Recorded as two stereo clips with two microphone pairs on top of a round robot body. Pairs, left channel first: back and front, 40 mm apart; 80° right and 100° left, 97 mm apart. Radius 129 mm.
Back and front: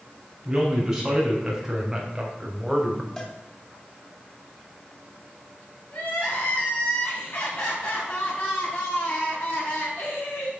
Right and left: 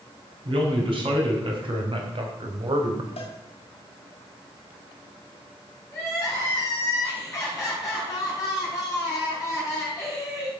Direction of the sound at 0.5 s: 75° left.